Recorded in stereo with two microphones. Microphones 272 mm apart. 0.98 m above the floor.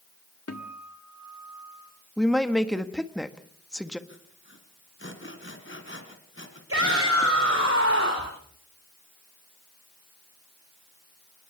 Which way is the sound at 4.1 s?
45° left (ahead or behind).